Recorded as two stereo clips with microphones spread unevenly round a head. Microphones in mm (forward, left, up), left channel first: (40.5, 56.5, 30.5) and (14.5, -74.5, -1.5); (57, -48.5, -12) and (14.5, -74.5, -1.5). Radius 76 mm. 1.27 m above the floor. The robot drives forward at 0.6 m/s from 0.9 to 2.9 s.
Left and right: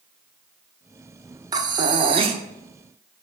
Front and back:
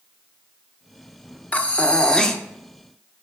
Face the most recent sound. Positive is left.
turn(degrees=-80)